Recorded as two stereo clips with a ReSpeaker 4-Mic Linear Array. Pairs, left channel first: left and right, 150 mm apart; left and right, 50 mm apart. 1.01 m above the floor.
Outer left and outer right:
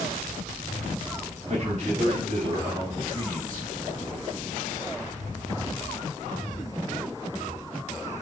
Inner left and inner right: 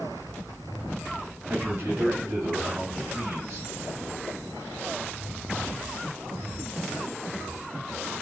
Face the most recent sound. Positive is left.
turn(degrees=-25)  # may be behind; listen again after turning